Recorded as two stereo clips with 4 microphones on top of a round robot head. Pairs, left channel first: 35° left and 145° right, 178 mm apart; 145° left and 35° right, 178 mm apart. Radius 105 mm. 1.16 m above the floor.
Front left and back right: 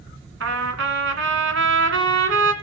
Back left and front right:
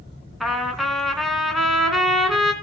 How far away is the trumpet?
About 2.5 m.